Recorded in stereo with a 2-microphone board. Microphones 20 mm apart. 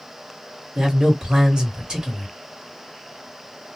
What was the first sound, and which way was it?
A man speaking, 40° right (ahead or behind).